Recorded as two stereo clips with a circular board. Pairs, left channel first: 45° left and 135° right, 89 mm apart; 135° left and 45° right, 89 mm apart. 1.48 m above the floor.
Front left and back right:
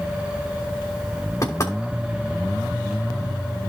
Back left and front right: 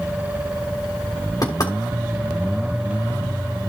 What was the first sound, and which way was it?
Knocking, 95° left.